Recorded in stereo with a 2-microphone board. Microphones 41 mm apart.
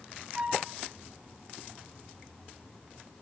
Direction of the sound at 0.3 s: 25° right (ahead or behind).